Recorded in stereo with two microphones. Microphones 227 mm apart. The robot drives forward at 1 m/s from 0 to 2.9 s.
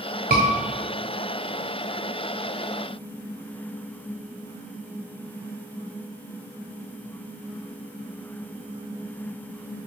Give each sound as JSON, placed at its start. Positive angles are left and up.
{"t": 0.3, "sound": "a scream", "side_deg": -40, "distance_m": 1.1}